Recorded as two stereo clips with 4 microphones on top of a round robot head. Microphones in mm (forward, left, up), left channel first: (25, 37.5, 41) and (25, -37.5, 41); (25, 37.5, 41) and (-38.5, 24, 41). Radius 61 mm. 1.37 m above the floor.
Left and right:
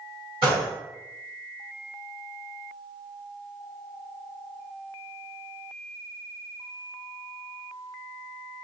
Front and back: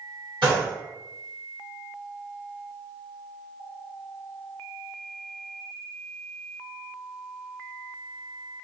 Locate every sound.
0.4 s a gunshot: 130° right, 1.8 m